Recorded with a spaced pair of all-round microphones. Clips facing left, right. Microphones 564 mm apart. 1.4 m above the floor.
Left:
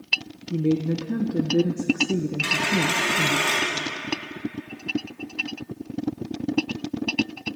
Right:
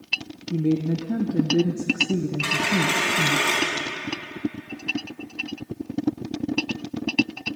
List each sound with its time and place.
0.5 s a woman speaking: 5° right (ahead or behind), 0.8 m
2.4 s a dropped coin: 70° right (ahead or behind), 5.5 m